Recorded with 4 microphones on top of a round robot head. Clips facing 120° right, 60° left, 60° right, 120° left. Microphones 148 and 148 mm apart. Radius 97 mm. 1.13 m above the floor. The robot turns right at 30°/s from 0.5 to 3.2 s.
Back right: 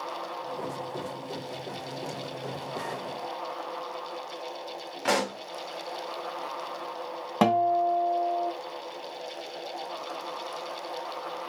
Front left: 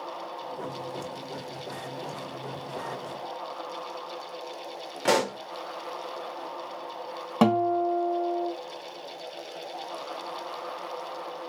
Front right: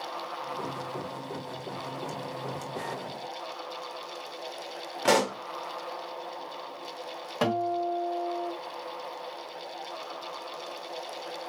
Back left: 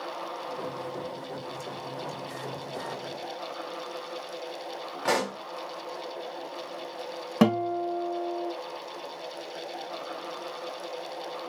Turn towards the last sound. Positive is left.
turn(degrees=145)